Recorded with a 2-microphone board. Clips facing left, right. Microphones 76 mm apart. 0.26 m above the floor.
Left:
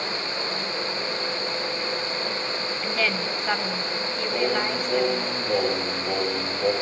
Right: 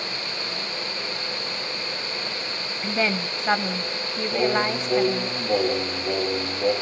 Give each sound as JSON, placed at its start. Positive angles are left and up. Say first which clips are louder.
{"t": 2.8, "sound": "a woman speaking", "louder": "right 3 dB", "side_deg": -20, "distance_m": 1.2}
{"t": 4.3, "sound": "singing", "louder": "right 3 dB", "side_deg": -10, "distance_m": 8.0}